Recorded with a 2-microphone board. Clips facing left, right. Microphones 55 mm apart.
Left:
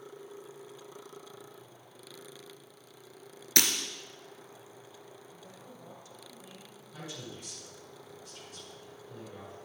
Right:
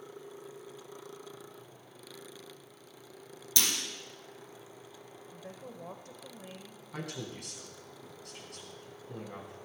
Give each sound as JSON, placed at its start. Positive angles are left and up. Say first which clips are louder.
{"t": 3.6, "sound": "breaking glass", "louder": "left 4 dB", "side_deg": 60, "distance_m": 1.9}
{"t": 5.3, "sound": "a woman speaking", "louder": "right 4 dB", "side_deg": -50, "distance_m": 1.3}
{"t": 6.9, "sound": "a man speaking", "louder": "right 3 dB", "side_deg": -65, "distance_m": 3.5}